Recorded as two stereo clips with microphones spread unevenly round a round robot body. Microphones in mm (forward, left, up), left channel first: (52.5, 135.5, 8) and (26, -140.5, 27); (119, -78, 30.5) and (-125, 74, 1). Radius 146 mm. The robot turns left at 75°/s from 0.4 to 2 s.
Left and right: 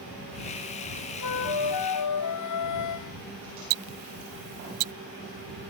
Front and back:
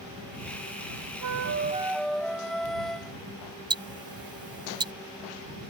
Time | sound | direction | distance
1.2 | a flute | 115° left | ?
3.7 | ticking | 135° right | ?